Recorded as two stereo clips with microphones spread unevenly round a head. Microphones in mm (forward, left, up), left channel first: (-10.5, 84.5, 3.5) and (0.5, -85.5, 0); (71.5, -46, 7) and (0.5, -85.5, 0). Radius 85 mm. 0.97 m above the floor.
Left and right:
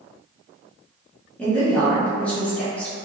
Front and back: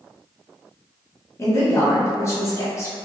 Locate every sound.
1.4 s a woman speaking: 15° left, 0.8 m